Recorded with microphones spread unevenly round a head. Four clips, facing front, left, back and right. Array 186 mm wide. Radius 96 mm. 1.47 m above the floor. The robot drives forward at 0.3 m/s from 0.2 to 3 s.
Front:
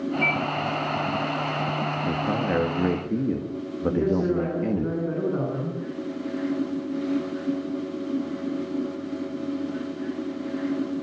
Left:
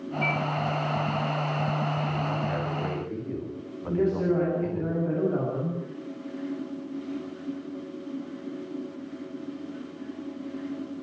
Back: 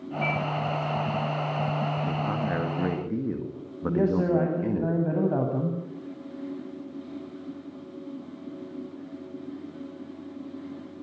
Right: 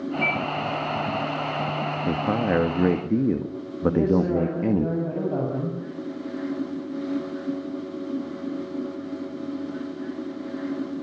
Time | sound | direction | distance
0.2 | a microwave | 55° right | 9.5 m
2.1 | a man speaking | 75° right | 2 m
3.9 | a man speaking | 165° right | 9 m